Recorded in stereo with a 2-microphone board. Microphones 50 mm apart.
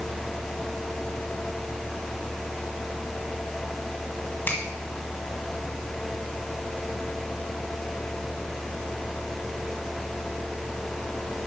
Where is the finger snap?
40° left (ahead or behind), 1.7 m.